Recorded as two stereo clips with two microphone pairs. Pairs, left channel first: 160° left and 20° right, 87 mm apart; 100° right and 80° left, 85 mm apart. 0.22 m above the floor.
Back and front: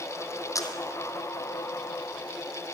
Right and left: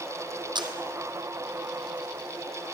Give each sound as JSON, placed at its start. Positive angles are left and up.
{"t": 0.6, "sound": "a camera shutter", "azimuth_deg": 105, "distance_m": 2.5}